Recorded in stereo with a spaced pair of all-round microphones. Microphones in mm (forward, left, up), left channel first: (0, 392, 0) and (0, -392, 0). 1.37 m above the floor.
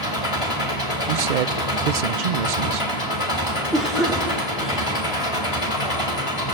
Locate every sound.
0.0 s an engine running: 40° left (ahead or behind), 3 m
1.1 s a man speaking: 70° right (ahead or behind), 0.7 m
3.7 s a cough: centre (ahead or behind), 2.5 m